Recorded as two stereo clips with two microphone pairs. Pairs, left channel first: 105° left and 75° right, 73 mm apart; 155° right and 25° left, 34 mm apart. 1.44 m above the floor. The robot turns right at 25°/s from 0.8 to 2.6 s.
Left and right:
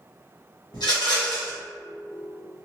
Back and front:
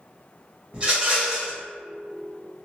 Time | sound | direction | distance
0.7 | a rattle | 85° left | 1.3 m